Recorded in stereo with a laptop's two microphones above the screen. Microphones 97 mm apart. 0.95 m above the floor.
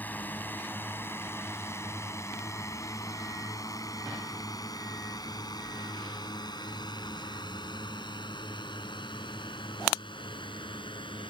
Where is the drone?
15° left (ahead or behind); by 11.3 s 60° left (ahead or behind).